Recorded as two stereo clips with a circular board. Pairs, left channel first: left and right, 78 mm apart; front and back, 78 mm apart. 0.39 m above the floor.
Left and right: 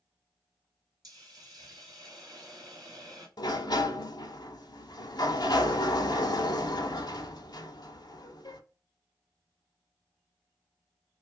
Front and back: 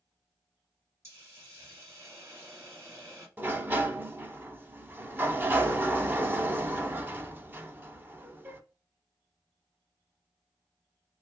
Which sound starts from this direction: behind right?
A hiss, at 1.0 s.